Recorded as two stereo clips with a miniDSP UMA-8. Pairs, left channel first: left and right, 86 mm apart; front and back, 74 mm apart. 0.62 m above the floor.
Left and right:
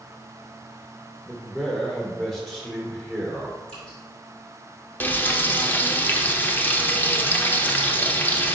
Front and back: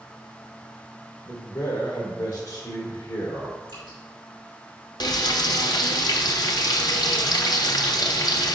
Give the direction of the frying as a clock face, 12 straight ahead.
11 o'clock.